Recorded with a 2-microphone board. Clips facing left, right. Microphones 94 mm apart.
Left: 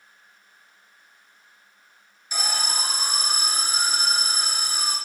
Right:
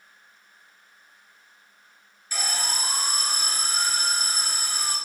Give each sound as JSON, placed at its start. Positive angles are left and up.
{"t": 2.3, "sound": "an alarm", "side_deg": 15, "distance_m": 1.8}